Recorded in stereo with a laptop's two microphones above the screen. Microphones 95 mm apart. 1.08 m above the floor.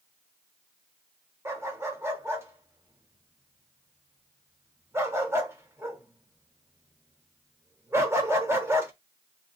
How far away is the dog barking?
About 0.9 m.